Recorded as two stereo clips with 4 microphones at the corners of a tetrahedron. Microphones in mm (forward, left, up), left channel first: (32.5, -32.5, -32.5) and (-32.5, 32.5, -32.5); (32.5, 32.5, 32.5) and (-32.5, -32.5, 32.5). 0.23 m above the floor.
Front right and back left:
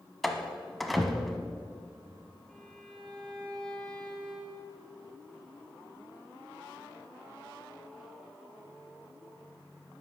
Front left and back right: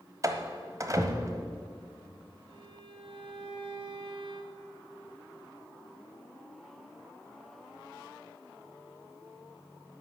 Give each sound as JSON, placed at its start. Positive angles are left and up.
{"t": 0.2, "sound": "a door slam", "azimuth_deg": -135, "distance_m": 1.0}
{"t": 2.5, "sound": "a violin", "azimuth_deg": -125, "distance_m": 2.5}